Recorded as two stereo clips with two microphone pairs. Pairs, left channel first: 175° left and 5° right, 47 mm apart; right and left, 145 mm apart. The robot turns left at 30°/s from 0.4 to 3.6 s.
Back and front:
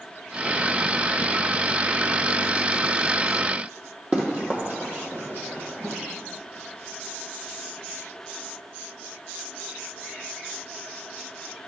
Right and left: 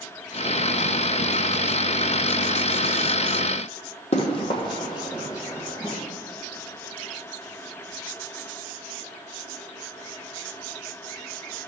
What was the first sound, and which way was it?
Running footsteps, 55° right.